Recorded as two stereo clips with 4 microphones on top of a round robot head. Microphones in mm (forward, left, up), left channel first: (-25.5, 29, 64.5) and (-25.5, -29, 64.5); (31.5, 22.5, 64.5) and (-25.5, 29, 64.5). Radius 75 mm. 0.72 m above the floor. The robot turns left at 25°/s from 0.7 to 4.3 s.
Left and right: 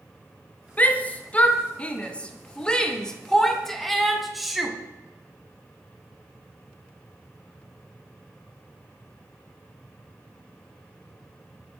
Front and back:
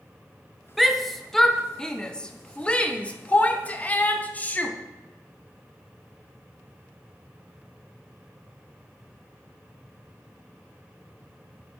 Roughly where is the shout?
Left.